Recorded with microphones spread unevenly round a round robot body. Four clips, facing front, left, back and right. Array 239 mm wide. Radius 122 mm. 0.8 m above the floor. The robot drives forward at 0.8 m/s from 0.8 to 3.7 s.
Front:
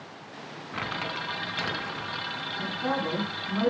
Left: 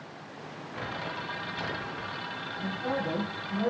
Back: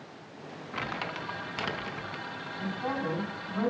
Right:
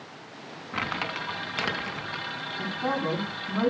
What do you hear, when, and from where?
0.7 s crumpling: 80° right, 4.5 m; by 2.2 s 95° right, 4 m
2.6 s a man speaking: 75° right, 10 m; by 3.7 s 80° right, 10 m